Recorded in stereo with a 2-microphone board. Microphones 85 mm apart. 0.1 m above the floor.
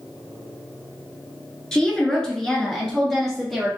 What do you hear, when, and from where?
1.7 s a woman speaking: 10° left (ahead or behind), 1.2 m; by 3.7 s centre (ahead or behind), 1.8 m